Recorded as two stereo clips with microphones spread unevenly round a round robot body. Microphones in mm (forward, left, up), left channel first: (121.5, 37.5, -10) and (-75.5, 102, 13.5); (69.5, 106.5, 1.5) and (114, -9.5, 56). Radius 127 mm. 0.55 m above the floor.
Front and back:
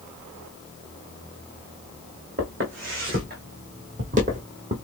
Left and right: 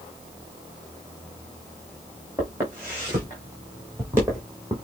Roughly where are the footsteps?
Behind right.